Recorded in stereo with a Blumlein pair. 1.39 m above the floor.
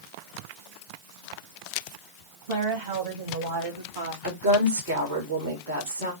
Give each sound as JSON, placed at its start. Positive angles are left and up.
{"t": 2.5, "sound": "a woman speaking", "azimuth_deg": -55, "distance_m": 2.5}
{"t": 4.2, "sound": "a woman speaking", "azimuth_deg": -65, "distance_m": 2.5}